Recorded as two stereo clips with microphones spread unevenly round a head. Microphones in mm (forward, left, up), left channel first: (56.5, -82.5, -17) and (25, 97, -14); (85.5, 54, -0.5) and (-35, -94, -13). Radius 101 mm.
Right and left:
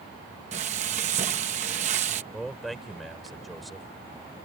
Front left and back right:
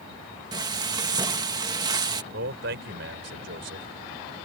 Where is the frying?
160° left.